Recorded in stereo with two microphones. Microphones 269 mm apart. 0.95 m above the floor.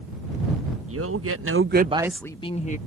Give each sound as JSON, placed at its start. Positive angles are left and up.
{"t": 0.9, "sound": "a man speaking", "side_deg": -55}